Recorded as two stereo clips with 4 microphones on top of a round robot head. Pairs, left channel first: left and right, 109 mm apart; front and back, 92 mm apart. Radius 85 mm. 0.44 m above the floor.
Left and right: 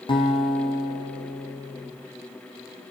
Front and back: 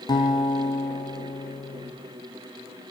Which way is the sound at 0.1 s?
45° left.